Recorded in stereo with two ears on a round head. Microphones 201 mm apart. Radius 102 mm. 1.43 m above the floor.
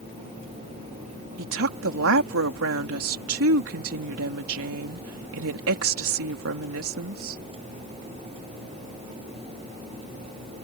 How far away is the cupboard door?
I don't hear a cupboard door.